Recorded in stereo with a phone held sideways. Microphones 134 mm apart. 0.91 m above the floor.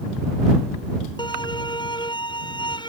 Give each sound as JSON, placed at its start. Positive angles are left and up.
{"t": 1.2, "sound": "a violin", "side_deg": 35}